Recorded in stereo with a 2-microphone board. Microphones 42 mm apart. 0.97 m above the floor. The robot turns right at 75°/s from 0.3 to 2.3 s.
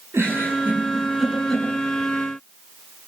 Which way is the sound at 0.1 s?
80° right.